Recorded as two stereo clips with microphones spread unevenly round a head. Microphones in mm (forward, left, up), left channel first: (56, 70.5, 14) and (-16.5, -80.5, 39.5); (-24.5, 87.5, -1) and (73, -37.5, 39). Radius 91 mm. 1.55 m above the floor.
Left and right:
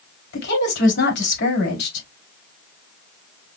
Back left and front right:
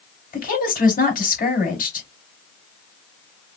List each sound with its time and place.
0.3 s a woman speaking: 90° left, 3.5 m